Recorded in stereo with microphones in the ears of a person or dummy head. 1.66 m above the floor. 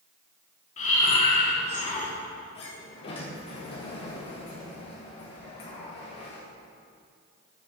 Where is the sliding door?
25° left (ahead or behind), 0.9 m.